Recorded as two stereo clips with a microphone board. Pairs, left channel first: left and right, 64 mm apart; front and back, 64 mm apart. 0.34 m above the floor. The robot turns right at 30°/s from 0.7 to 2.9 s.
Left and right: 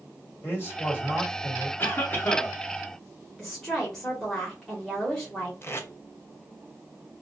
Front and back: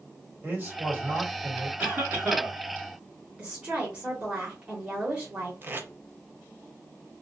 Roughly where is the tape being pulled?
Behind left.